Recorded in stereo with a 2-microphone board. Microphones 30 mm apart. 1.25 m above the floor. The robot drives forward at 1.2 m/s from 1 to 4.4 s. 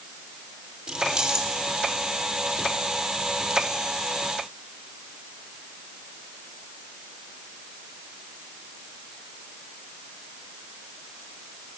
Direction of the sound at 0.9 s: 30° right (ahead or behind).